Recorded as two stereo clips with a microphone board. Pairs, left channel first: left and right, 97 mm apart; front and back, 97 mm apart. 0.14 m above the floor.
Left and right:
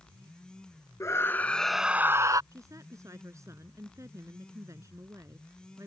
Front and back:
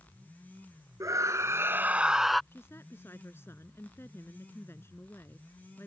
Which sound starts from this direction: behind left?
A scream, at 1.0 s.